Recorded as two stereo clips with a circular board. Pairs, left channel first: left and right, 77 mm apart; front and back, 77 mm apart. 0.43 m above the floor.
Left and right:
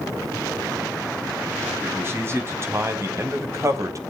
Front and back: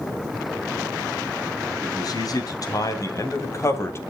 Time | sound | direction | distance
1.8 | a man speaking | 30° right | 4 m